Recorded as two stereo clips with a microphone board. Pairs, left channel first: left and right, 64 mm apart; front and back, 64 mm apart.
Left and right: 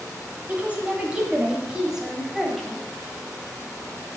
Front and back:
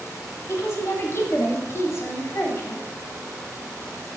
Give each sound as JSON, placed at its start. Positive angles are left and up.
{"t": 0.5, "sound": "a woman speaking", "azimuth_deg": -30, "distance_m": 2.5}